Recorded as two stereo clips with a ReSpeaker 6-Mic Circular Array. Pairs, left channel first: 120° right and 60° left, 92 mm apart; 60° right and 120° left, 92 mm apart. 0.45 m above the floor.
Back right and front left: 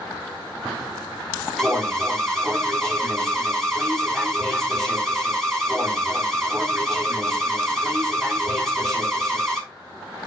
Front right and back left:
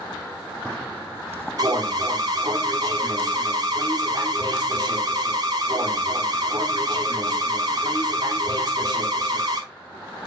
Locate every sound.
1.6 s an alarm: 155° left, 3.5 m